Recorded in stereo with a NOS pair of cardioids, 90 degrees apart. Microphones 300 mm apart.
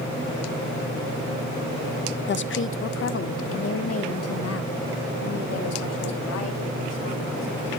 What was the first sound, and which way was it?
A woman speaking, 40° left.